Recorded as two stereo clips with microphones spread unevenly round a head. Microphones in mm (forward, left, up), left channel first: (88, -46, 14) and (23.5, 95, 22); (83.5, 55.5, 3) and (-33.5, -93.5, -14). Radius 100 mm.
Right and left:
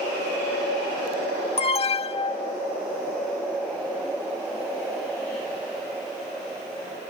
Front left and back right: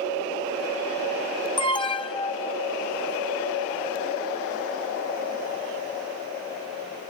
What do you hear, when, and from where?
1.6 s an alarm: 15° right